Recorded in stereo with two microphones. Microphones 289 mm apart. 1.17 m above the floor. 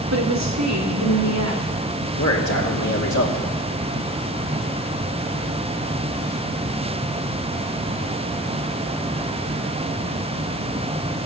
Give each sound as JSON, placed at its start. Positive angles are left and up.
{"t": 0.1, "sound": "a woman speaking", "side_deg": -65, "distance_m": 2.0}
{"t": 2.2, "sound": "a man speaking", "side_deg": 80, "distance_m": 2.5}